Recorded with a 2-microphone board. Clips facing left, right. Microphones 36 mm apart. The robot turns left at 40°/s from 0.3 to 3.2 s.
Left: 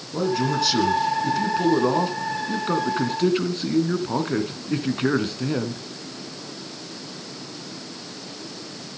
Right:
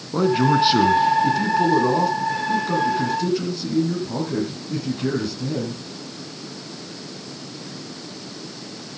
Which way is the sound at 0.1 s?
130° right.